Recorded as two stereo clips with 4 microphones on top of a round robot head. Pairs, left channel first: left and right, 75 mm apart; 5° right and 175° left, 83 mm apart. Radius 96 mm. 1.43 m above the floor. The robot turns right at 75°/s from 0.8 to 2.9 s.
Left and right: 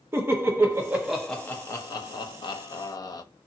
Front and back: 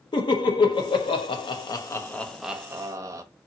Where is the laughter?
30° right, 0.7 m; by 3.2 s 125° left, 0.7 m.